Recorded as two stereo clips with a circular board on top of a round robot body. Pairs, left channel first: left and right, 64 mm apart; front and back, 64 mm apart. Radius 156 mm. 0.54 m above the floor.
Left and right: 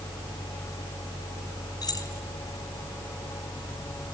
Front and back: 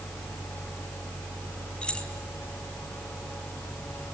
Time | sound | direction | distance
1.8 | keys jangling | 75° left | 4 m